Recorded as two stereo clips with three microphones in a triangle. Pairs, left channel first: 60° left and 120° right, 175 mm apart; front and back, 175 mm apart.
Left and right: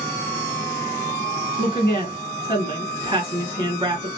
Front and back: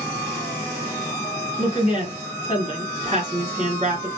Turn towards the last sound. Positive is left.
turn(degrees=-160)